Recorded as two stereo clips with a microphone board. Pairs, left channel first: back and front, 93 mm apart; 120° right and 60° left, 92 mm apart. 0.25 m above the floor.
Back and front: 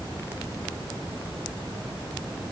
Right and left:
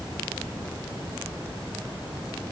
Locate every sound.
Only background noise.